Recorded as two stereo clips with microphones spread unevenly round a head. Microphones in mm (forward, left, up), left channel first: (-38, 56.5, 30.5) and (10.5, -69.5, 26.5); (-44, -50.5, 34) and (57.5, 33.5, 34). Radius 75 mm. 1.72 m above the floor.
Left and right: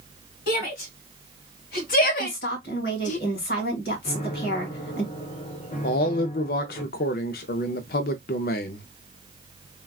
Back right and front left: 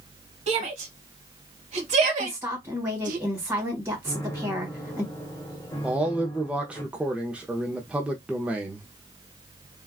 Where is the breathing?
I don't hear breathing.